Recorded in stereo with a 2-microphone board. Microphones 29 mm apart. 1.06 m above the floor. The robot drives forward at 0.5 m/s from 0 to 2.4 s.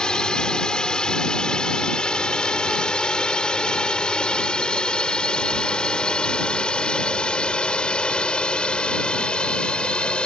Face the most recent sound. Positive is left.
turn(degrees=40)  # may be behind; listen again after turning